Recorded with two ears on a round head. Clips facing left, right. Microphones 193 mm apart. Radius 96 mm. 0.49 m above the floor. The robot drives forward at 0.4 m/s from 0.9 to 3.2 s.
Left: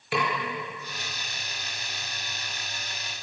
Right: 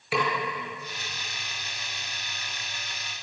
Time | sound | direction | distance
0.1 | a snare drum | centre (ahead or behind) | 7 m